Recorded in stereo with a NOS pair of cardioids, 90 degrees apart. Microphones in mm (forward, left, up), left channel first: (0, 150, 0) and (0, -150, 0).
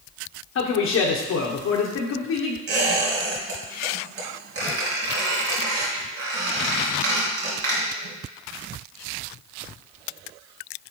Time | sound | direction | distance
0.6 | a man speaking | 60° left | 0.9 m
2.7 | a squeak | 50° right | 3.5 m